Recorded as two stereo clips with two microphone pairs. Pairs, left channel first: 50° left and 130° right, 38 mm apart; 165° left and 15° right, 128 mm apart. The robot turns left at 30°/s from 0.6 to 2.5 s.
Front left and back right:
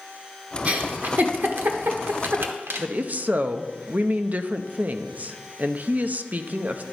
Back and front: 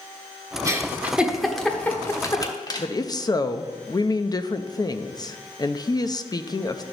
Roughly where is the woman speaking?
Behind right.